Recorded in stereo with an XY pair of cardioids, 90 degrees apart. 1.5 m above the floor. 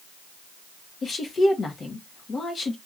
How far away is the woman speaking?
About 1.6 m.